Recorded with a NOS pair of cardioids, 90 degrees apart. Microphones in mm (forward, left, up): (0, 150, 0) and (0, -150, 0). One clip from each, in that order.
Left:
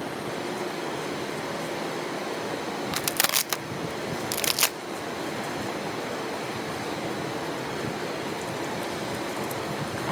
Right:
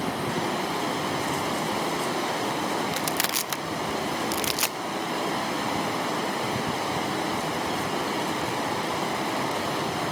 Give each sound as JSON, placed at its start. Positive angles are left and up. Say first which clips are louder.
{"t": 0.0, "sound": "running water", "louder": "right 4 dB", "azimuth_deg": -65, "distance_m": 8.0}
{"t": 2.9, "sound": "crushing", "louder": "left 1 dB", "azimuth_deg": 15, "distance_m": 0.7}